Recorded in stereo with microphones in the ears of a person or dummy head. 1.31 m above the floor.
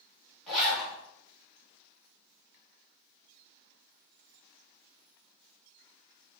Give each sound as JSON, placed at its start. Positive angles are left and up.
{"t": 0.5, "sound": "a zipper", "side_deg": 0, "distance_m": 1.4}